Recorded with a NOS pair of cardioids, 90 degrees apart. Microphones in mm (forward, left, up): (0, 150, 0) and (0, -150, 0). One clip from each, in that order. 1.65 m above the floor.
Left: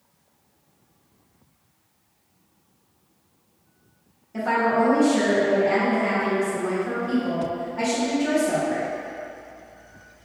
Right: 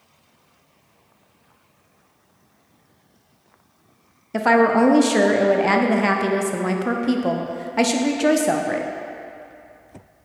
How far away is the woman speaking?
About 0.6 m.